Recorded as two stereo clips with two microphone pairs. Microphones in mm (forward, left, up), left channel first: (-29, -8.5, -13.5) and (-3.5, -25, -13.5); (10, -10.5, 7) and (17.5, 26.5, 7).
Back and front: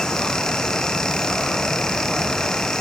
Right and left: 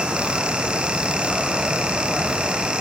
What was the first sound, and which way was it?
Only background noise.